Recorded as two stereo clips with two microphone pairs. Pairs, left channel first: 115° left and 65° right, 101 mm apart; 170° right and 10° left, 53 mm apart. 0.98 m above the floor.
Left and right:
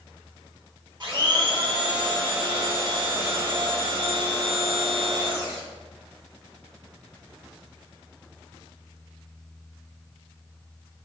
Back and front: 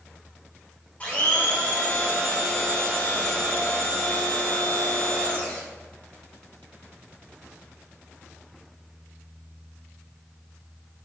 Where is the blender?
105° right, 0.9 m.